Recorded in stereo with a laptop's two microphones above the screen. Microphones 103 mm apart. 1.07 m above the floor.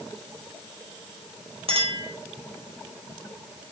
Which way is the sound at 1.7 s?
70° right (ahead or behind).